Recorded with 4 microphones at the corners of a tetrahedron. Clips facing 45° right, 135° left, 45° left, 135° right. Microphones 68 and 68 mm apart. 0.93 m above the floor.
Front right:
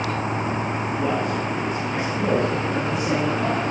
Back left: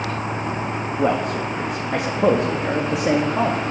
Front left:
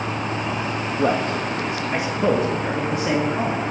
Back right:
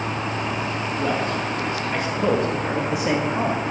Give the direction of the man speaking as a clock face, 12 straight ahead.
9 o'clock.